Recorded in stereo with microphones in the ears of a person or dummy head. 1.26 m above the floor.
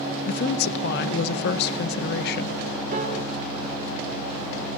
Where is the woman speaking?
65° left (ahead or behind), 1.0 m.